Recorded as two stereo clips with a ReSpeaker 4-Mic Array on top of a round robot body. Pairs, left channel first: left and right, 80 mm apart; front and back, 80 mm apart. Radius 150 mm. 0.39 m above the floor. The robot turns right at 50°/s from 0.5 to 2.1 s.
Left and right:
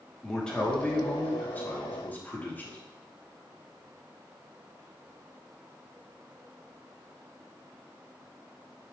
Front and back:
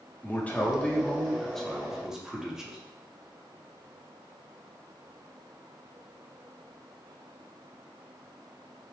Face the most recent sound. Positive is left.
turn(degrees=105)